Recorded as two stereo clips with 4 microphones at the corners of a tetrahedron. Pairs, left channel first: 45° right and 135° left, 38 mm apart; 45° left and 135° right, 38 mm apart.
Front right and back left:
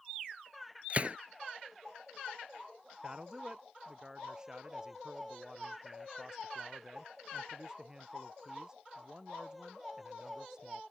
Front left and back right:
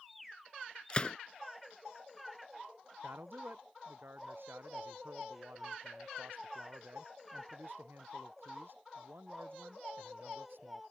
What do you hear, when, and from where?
0.9 s a gunshot: 100° left
3.0 s a man speaking: 155° right